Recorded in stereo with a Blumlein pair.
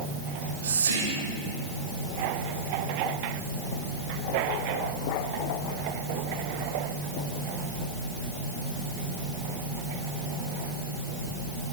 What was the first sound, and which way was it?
Whispering, 65° right.